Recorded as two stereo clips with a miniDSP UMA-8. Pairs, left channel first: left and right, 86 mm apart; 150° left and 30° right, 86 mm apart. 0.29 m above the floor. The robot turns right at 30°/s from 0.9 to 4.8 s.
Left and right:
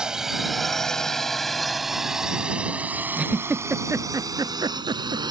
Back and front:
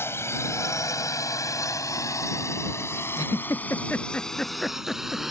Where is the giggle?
170° right; by 5.2 s 120° right.